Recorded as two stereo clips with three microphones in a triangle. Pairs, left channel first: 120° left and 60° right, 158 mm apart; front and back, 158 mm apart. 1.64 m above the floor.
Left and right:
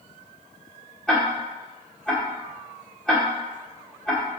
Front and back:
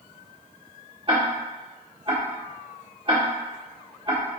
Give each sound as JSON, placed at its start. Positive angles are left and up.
{"t": 1.1, "sound": "ticking", "azimuth_deg": -155, "distance_m": 1.5}